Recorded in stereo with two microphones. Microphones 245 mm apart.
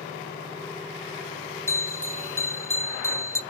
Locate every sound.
1.7 s a bell: 10° left (ahead or behind), 1.1 m